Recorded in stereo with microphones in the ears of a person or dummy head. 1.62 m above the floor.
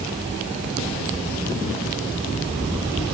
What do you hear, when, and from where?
Only background noise.